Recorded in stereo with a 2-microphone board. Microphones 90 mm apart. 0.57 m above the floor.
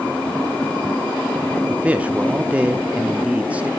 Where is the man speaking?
15° right (ahead or behind), 0.7 m.